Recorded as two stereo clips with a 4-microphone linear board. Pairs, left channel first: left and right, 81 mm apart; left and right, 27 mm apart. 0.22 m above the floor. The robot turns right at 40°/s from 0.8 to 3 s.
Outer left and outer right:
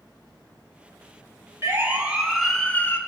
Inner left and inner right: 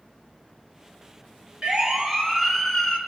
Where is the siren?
35° right (ahead or behind), 3 m; by 3.0 s 30° left (ahead or behind), 3.5 m.